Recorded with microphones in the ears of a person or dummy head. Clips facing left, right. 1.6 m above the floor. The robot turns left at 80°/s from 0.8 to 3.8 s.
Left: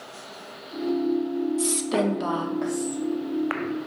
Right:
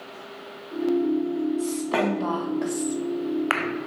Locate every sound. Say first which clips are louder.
1.6 s a woman speaking: even; 75° left, 0.5 m; by 3.0 s 45° right, 0.5 m